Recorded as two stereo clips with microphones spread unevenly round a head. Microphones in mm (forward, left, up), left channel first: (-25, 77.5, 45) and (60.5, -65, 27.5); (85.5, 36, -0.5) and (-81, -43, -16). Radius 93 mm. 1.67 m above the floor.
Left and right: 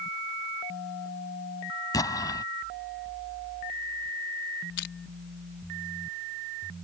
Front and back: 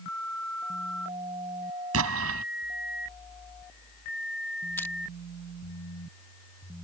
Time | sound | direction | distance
1.9 | an explosion | 170° right | ?
4.8 | crushing | 105° left | ?